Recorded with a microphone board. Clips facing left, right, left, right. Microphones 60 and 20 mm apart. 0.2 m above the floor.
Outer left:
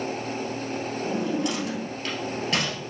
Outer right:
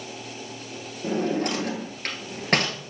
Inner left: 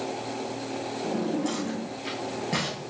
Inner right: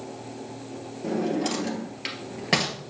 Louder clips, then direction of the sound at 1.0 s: Outer right 3 dB, inner right 3 dB; 50° right (ahead or behind).